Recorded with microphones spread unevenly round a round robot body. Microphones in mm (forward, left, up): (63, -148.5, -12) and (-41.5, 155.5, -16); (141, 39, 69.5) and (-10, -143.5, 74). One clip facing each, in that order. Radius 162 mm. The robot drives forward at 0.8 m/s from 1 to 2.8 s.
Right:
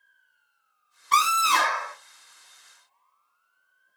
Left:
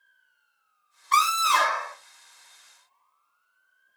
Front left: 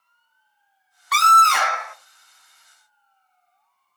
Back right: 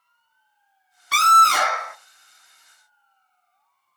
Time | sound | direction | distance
1.1 | a scream | 85° right | 1.4 m